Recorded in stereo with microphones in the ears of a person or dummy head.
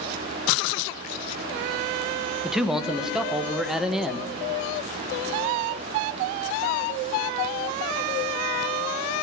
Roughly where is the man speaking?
Centre.